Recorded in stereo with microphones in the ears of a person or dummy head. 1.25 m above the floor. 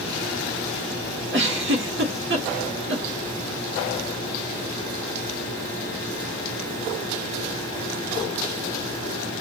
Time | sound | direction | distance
1.3 | a giggle | 55° right (ahead or behind) | 0.7 m